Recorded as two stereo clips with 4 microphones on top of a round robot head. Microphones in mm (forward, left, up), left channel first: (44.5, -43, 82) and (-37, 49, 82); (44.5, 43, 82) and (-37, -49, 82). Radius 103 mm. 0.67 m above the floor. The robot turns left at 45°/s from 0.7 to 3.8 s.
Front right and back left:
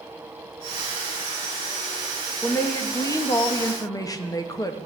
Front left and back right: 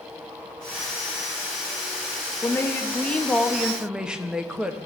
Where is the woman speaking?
5° left, 0.8 m; by 4.8 s 55° right, 0.8 m.